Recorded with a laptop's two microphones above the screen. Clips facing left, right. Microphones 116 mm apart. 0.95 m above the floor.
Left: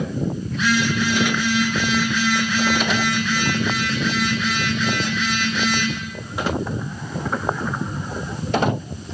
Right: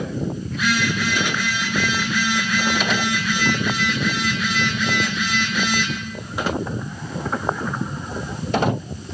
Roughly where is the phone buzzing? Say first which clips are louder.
Left 2 dB; centre.